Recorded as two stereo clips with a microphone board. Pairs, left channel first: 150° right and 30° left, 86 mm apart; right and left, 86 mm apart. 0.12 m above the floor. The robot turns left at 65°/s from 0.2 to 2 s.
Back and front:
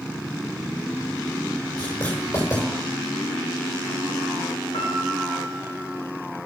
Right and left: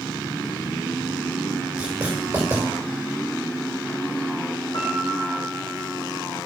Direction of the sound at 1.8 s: 170° left.